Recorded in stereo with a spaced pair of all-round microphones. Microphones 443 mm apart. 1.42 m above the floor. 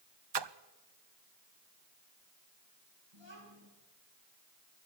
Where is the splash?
65° right (ahead or behind), 0.7 m.